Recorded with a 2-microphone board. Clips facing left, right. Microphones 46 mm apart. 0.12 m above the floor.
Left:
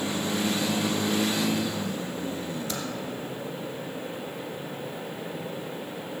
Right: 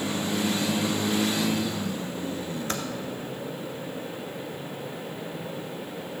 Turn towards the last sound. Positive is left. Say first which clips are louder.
# right 2 dB
turn(degrees=-45)  # may be behind; listen again after turning